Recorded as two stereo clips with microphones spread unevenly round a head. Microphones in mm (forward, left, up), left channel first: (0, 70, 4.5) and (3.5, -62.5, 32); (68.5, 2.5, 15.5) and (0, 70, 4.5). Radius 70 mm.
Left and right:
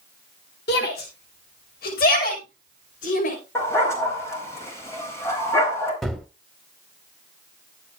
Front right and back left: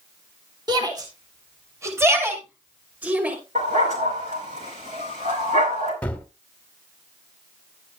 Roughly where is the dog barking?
Behind.